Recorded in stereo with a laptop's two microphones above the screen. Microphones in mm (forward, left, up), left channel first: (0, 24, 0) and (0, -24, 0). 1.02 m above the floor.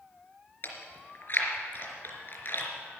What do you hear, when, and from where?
0.6 s chewing: 50° left (ahead or behind), 3.5 m